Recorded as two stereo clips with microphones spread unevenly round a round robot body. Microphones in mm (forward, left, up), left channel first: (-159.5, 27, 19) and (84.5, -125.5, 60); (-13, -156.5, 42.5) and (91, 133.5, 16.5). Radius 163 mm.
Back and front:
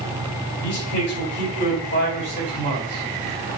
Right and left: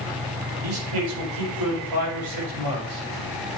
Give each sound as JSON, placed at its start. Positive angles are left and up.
{"t": 0.6, "sound": "a man speaking", "azimuth_deg": 95, "distance_m": 5.0}